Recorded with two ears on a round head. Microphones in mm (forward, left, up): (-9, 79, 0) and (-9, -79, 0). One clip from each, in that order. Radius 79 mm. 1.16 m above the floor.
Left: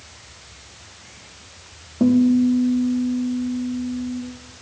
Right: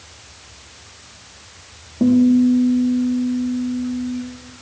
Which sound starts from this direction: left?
A guitar, at 2.0 s.